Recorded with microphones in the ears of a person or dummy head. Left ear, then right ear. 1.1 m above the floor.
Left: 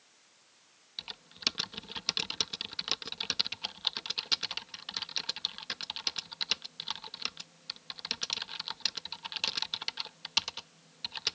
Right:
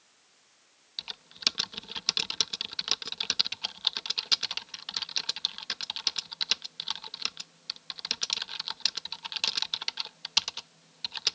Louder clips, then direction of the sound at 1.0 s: Right 4 dB; 20° right (ahead or behind).